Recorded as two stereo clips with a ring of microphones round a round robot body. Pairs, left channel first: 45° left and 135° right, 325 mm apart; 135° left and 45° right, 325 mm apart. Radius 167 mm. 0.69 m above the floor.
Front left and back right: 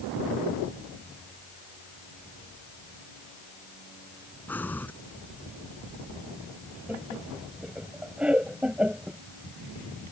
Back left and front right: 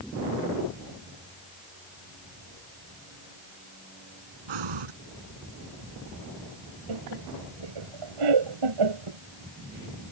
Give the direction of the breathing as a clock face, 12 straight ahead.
1 o'clock.